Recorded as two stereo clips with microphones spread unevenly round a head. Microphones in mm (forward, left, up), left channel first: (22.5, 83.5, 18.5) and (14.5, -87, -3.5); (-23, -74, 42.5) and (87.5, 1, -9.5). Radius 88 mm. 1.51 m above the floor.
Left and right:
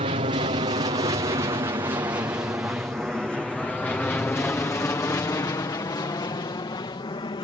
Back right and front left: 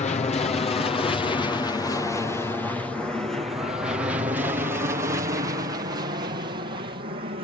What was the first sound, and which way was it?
An aircraft, 115° right.